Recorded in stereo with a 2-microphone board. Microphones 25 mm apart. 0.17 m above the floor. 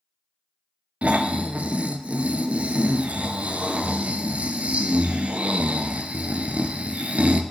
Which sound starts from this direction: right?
Snoring, at 1.0 s.